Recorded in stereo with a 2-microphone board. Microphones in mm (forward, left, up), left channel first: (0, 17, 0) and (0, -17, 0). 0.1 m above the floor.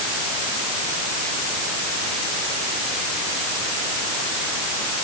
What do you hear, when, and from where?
Only background noise.